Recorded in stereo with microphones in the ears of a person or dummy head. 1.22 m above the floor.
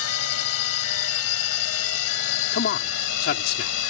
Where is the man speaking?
55° left (ahead or behind).